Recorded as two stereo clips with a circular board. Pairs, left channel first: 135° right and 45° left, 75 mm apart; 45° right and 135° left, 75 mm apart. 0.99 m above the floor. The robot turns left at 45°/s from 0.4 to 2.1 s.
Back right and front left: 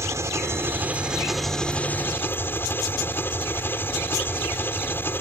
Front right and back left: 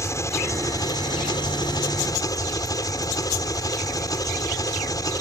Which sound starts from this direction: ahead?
An engine running, at 0.0 s.